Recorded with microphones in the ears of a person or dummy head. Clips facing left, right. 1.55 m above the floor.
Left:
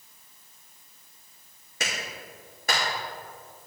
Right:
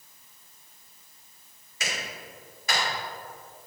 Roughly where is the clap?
Left.